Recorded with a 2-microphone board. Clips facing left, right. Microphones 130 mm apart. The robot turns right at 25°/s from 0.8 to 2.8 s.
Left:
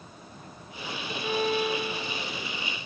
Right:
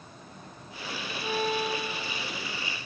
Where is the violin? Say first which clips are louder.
Left 2 dB; 25° left, 4.5 m; by 2.4 s 60° left, 4.5 m.